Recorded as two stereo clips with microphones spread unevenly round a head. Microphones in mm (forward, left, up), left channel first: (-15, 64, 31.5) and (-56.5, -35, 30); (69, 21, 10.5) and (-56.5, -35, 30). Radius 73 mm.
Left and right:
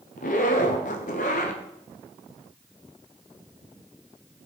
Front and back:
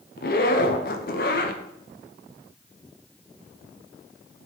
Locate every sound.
0.2 s a zipper: 55° left, 0.8 m